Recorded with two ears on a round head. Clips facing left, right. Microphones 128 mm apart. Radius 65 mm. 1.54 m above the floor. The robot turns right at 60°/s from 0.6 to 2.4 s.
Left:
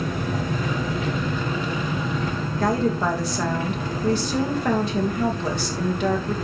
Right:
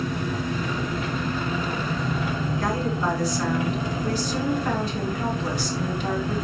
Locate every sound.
0.0 s an engine running: 90° left, 4.5 m; by 6.5 s 165° right, 4.5 m
2.6 s a woman speaking: 50° left (ahead or behind), 2 m